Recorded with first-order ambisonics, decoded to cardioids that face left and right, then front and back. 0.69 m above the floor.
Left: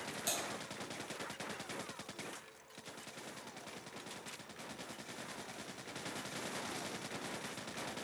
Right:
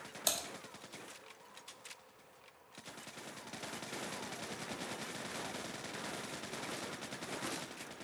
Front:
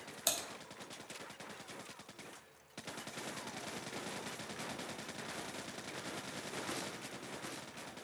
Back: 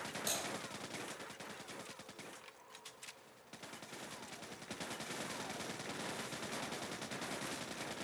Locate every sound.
0.3 s typing on a keyboard: 40° right, 1.3 m